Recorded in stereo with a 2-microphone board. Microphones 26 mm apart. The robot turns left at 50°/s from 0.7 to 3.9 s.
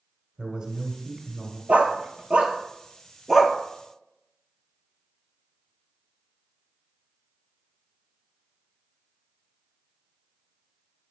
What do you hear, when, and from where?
0.4 s a man speaking: 120° right, 1.1 m; by 1.6 s 165° right, 1.1 m
1.7 s a dog barking: 70° right (ahead or behind), 0.6 m; by 3.6 s 5° right (ahead or behind), 0.6 m